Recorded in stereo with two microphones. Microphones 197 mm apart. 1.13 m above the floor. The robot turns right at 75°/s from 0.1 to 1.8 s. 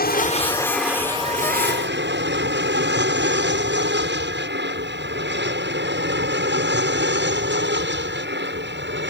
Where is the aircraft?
50° left (ahead or behind); by 9.1 s 65° right (ahead or behind).